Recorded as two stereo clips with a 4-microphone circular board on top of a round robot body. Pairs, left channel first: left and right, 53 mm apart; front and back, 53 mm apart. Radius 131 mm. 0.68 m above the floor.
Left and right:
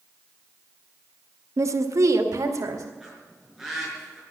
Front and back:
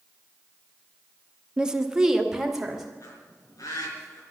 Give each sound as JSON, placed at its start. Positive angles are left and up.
{"t": 1.6, "sound": "a woman speaking", "azimuth_deg": -105, "distance_m": 1.2}
{"t": 3.0, "sound": "a bird", "azimuth_deg": -5, "distance_m": 5.0}